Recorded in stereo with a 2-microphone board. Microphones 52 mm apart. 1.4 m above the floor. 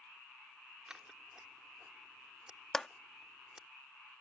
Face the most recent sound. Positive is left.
turn(degrees=10)  # may be behind; listen again after turning